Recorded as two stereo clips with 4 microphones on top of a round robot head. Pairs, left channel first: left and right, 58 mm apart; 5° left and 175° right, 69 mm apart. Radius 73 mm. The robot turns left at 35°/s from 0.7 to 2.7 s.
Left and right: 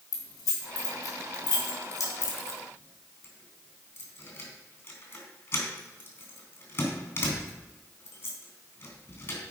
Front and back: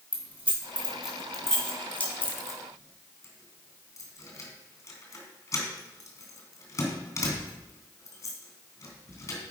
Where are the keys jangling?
110° left, 3 m; by 9.4 s 40° left, 3 m.